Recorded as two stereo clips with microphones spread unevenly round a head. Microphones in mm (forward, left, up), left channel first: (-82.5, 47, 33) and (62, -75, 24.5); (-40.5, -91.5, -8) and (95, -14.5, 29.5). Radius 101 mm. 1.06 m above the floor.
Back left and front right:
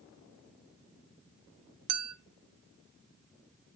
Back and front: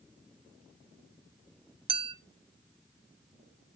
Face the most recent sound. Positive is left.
turn(degrees=-25)